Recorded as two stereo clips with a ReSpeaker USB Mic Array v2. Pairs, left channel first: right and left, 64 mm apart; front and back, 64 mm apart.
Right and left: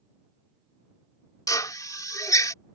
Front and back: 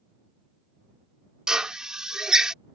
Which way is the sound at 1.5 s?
100° right.